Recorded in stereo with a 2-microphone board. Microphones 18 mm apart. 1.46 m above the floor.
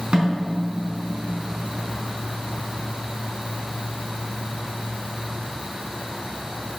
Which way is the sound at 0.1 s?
70° right (ahead or behind).